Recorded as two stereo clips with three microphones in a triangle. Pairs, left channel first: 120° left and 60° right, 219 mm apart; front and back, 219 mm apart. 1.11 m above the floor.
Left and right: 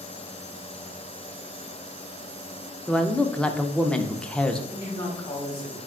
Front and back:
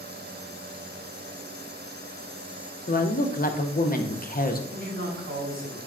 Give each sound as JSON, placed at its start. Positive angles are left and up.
{"t": 2.9, "sound": "a woman speaking", "azimuth_deg": 35, "distance_m": 0.5}
{"t": 4.7, "sound": "a man speaking", "azimuth_deg": -170, "distance_m": 1.8}